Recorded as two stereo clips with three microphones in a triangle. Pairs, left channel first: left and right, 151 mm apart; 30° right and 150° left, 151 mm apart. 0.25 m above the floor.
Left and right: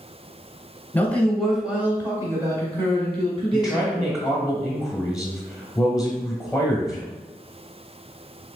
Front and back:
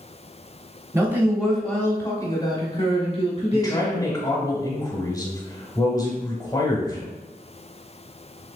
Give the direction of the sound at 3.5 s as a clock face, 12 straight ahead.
12 o'clock.